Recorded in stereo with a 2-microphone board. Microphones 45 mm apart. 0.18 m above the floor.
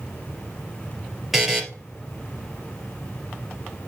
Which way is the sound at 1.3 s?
10° right (ahead or behind).